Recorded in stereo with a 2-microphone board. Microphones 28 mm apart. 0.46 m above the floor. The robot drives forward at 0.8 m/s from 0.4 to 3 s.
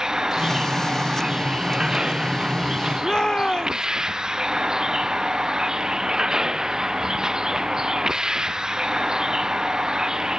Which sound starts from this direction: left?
A shout, at 3.0 s.